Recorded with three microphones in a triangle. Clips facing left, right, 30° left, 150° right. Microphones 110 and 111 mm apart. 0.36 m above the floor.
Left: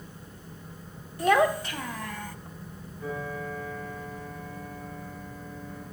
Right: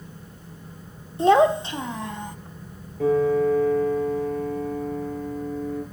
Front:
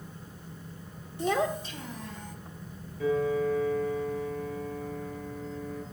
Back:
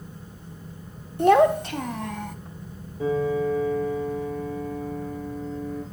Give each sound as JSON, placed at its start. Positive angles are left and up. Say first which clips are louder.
{"t": 1.2, "sound": "a child speaking", "louder": "right 6 dB, back 11 dB", "azimuth_deg": -150, "distance_m": 0.7}
{"t": 3.0, "sound": "a piano", "louder": "right 16 dB, back 3 dB", "azimuth_deg": -90, "distance_m": 6.5}